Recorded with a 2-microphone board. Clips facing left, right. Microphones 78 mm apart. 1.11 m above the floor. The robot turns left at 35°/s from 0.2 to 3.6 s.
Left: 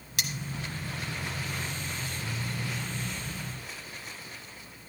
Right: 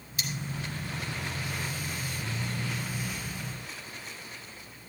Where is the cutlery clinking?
70° left (ahead or behind), 1.1 m.